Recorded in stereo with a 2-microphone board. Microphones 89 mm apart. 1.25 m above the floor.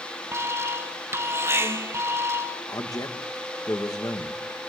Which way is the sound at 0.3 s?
30° right (ahead or behind).